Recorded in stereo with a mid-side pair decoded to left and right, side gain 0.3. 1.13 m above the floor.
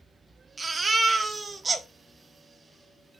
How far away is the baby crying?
About 0.7 m.